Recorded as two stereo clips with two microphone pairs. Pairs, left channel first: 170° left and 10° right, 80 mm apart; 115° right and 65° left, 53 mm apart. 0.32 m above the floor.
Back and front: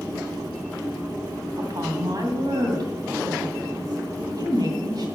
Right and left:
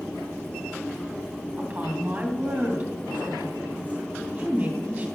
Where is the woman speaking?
10° left, 2 m.